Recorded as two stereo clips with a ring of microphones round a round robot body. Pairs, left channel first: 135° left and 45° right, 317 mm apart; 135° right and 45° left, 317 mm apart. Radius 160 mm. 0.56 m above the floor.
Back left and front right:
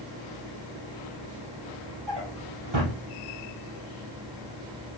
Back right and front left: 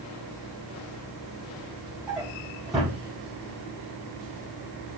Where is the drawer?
45° right, 3.5 m.